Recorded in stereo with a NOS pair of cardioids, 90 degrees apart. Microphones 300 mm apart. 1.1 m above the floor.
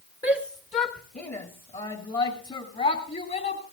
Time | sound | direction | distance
0.2 | a shout | 20° left | 1.6 m